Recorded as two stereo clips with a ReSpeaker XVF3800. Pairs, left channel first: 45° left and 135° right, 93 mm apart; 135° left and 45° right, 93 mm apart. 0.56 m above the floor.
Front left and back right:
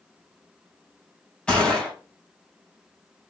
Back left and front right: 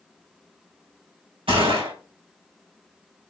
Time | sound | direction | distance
1.5 | a gunshot | 35° right | 2.5 m